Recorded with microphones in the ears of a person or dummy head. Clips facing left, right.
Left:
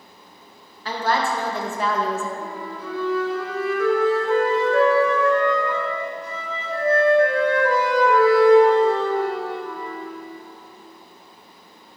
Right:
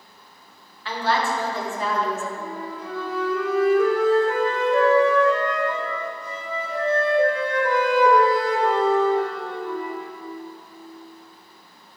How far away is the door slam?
I don't hear a door slam.